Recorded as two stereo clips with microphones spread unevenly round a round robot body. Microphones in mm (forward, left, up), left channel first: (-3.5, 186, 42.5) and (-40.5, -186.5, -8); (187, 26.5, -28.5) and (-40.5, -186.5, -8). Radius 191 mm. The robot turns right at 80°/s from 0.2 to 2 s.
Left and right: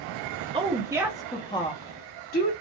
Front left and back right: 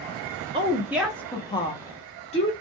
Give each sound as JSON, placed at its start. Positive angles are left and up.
{"t": 0.5, "sound": "a woman speaking", "azimuth_deg": -80, "distance_m": 0.6}